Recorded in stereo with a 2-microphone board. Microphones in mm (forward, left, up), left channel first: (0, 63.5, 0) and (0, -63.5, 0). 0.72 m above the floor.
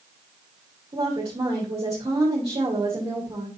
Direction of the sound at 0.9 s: 40° right (ahead or behind).